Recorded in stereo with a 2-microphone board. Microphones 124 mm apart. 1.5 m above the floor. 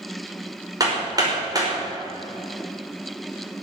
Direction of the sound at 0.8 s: 30° right (ahead or behind).